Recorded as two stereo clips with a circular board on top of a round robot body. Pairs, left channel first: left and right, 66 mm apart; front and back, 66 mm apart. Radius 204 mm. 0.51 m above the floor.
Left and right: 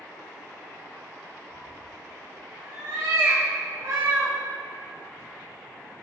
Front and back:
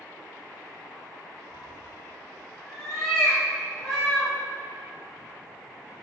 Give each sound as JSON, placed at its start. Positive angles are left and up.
{"t": 1.5, "sound": "a cat meowing", "azimuth_deg": -80, "distance_m": 4.0}